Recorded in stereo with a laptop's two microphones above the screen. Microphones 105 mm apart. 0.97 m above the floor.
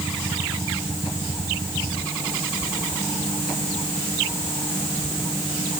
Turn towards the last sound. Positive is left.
No sound to turn to.